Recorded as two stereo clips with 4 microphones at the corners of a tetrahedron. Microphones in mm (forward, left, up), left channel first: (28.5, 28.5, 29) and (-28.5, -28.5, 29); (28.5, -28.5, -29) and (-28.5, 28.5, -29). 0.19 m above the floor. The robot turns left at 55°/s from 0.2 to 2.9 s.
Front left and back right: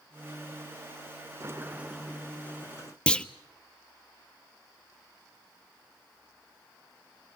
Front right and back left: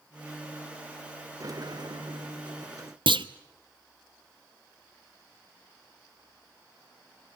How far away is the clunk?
About 0.7 m.